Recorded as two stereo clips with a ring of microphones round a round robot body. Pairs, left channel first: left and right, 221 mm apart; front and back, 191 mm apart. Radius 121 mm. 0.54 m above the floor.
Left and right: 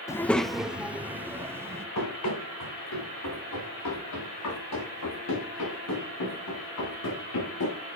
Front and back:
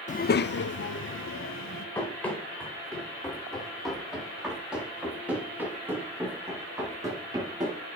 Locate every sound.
0.1 s a child speaking: 20° left, 0.5 m; by 1.9 s 10° right, 1.8 m
1.9 s running footsteps: 80° left, 6.5 m; by 7.8 s 110° left, 6 m